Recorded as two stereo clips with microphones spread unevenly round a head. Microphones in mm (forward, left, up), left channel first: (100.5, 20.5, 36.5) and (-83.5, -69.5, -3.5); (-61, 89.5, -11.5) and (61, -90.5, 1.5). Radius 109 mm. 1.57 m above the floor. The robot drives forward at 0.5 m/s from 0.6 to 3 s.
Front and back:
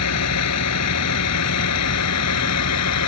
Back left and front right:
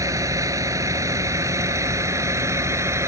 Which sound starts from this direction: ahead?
A vehicle, at 0.0 s.